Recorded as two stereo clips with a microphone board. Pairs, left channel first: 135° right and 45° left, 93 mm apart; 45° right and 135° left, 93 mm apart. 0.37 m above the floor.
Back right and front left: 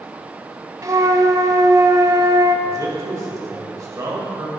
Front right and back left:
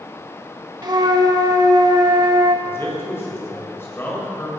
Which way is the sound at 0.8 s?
95° left.